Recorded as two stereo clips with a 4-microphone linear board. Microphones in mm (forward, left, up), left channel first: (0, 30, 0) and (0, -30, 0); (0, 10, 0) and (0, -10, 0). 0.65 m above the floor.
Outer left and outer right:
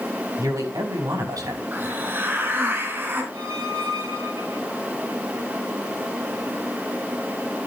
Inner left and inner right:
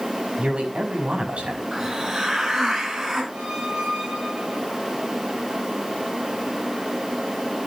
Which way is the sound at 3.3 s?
60° right (ahead or behind).